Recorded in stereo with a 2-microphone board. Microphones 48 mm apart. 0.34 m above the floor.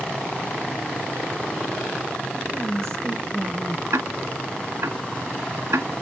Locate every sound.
2.5 s a woman speaking: 60° right (ahead or behind), 5 m
3.9 s ticking: 80° right, 1.4 m